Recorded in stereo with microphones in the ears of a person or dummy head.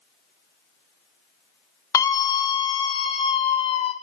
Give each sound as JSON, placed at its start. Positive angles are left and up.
{"t": 1.9, "sound": "a scream", "side_deg": 15, "distance_m": 1.5}